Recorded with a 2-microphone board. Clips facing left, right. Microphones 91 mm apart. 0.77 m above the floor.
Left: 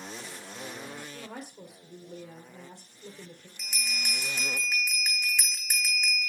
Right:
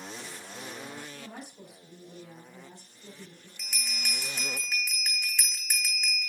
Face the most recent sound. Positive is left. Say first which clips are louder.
# left 2 dB
turn(degrees=15)  # may be behind; listen again after turning